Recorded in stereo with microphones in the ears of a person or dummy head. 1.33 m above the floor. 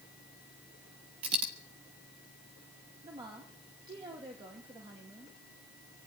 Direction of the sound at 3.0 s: 25° right (ahead or behind).